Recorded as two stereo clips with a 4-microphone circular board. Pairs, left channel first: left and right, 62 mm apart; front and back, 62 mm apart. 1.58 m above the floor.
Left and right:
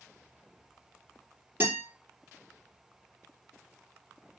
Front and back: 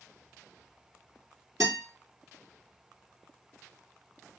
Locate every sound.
1.6 s a guitar: 150° right, 3.5 m